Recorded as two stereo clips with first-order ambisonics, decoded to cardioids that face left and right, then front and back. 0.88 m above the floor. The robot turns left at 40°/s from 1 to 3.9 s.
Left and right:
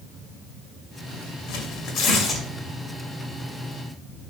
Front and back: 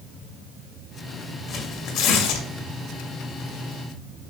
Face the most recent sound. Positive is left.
turn(degrees=-40)